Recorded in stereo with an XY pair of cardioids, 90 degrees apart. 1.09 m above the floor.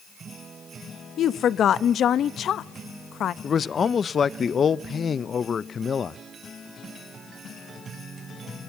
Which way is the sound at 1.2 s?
65° left.